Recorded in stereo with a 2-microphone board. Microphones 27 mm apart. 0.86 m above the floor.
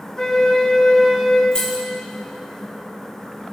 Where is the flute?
20° left (ahead or behind), 2 m.